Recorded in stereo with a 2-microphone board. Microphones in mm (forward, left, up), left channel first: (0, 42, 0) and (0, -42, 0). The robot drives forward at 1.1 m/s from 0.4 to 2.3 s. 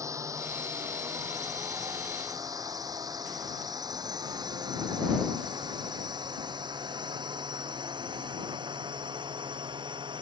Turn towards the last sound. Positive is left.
turn(degrees=-65)  # may be behind; listen again after turning